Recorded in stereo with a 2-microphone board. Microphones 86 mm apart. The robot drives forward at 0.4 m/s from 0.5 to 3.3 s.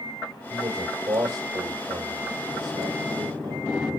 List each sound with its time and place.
0.5 s a man speaking: 50° right (ahead or behind), 2.5 m; by 3.6 s 60° right (ahead or behind), 2.5 m